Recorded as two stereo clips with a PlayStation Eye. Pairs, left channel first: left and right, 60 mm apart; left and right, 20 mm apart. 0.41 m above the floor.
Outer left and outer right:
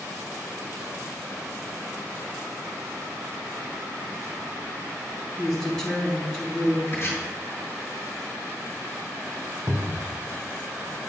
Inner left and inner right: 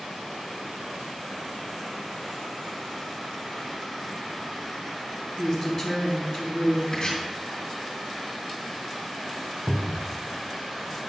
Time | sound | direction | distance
5.4 | a woman speaking | 10° left (ahead or behind) | 3.5 m
6.9 | chopping | 40° left (ahead or behind) | 3.5 m
9.7 | a cupboard door | 35° right (ahead or behind) | 0.9 m